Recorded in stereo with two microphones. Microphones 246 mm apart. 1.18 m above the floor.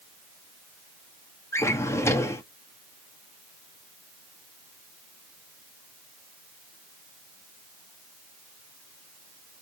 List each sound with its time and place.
1.5 s a drawer: 10° left (ahead or behind), 0.8 m